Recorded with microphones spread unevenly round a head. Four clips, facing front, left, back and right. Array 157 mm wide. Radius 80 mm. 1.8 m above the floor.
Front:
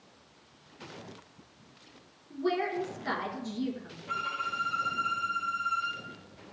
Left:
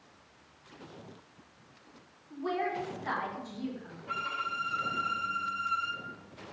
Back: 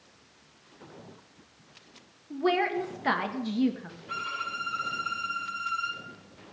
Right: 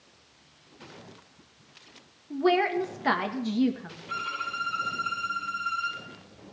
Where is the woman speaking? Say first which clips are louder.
Right 9 dB, back 4 dB; 125° right, 1.4 m.